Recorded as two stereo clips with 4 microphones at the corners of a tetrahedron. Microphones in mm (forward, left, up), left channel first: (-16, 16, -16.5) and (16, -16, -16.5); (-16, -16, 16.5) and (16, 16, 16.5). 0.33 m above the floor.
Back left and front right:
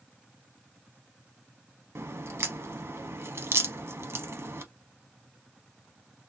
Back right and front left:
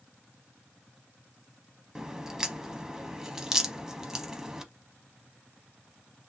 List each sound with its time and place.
1.9 s a crack: 30° right, 0.7 m